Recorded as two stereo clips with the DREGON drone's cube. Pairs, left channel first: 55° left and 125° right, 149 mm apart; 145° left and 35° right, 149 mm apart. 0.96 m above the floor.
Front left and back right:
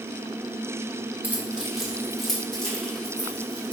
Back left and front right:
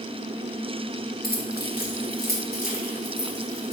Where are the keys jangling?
155° left, 1.2 m; by 3.7 s 135° left, 3.5 m.